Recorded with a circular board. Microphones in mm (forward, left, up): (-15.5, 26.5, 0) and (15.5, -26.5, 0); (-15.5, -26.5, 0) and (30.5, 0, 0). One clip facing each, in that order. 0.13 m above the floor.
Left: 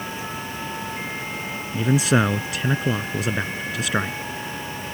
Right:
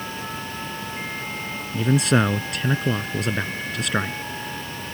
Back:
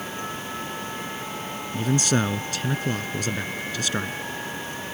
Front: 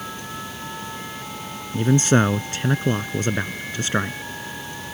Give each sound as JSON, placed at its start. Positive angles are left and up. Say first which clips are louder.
{"t": 1.7, "sound": "a man speaking", "louder": "even, front 6 dB", "azimuth_deg": 35}